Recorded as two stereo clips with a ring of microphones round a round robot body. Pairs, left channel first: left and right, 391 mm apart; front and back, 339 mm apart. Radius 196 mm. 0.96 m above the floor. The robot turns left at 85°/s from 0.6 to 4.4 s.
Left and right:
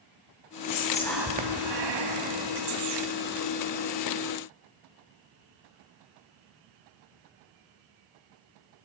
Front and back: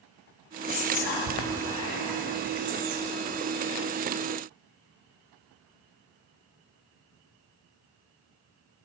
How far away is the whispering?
About 1.5 m.